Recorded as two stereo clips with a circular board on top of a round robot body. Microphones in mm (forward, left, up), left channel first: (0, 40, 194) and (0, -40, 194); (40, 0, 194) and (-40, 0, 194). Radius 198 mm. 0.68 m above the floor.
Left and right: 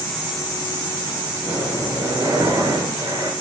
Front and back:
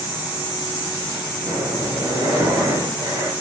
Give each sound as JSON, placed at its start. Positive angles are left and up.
{"t": 1.4, "sound": "breathing", "azimuth_deg": -130, "distance_m": 5.5}